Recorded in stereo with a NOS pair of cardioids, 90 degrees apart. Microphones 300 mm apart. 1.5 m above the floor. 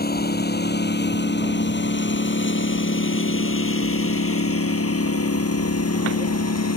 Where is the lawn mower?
30° left; by 6.8 s 60° left.